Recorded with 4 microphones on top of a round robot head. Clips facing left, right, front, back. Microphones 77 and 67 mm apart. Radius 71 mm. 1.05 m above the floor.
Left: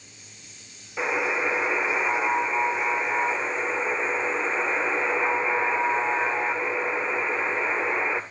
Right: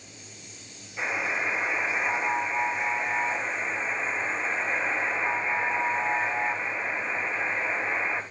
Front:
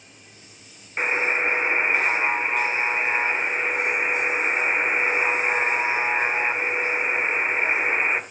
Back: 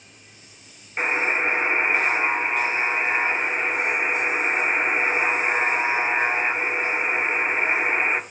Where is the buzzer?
85° left, 2 m.